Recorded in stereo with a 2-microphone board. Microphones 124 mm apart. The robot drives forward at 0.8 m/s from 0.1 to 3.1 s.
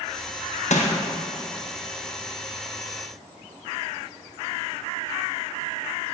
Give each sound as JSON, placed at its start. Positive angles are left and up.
{"t": 0.7, "sound": "crushing", "side_deg": 70, "distance_m": 0.7}